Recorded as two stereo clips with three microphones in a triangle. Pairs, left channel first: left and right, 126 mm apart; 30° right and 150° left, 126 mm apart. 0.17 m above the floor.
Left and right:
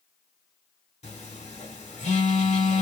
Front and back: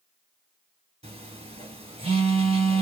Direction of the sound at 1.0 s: 115° left.